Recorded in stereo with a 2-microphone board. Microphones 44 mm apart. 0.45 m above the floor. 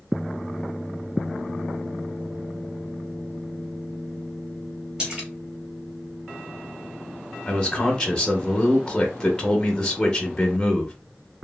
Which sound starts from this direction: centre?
A man speaking, at 7.5 s.